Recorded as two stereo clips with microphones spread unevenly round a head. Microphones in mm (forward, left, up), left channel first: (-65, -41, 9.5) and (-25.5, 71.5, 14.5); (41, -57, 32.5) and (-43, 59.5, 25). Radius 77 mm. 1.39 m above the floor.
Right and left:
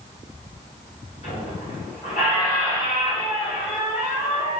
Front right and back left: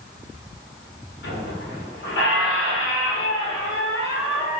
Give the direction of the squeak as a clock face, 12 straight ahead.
2 o'clock.